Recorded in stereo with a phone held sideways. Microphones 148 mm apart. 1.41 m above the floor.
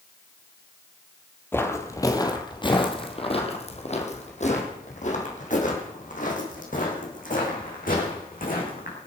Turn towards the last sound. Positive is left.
turn(degrees=70)  # may be behind; listen again after turning